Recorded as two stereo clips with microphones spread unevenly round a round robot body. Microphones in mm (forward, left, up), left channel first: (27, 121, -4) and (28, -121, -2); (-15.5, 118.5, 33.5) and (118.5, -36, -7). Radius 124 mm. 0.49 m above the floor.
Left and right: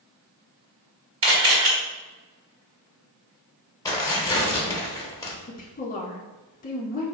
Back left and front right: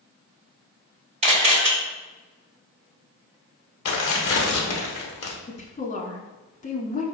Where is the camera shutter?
95° right, 1.5 m.